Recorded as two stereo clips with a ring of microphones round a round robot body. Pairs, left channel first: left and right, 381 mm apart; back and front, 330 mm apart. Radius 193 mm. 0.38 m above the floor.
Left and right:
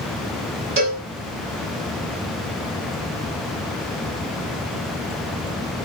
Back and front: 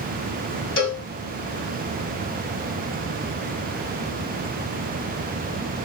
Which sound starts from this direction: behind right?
A cowbell, at 0.8 s.